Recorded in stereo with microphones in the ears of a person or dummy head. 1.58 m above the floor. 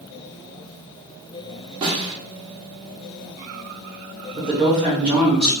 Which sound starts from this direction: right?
A snare drum, at 1.8 s.